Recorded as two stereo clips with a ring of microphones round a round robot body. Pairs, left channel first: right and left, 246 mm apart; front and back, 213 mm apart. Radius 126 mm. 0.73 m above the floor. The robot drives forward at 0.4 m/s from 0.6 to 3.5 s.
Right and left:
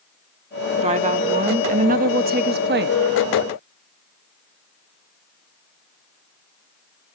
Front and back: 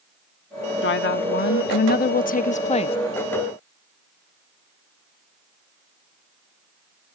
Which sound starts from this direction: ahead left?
A woman speaking, at 0.8 s.